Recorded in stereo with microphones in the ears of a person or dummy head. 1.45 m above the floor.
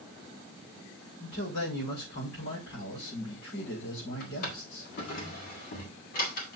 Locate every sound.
1.2 s a man speaking: 70° left (ahead or behind), 5.5 m
4.2 s a drawer: 50° left (ahead or behind), 1.7 m